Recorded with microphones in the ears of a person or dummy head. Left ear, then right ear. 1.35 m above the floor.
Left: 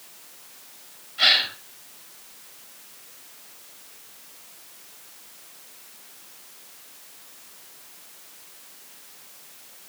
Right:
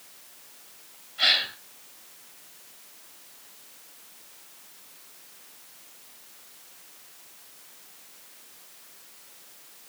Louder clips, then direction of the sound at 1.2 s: Left 4 dB; centre (ahead or behind).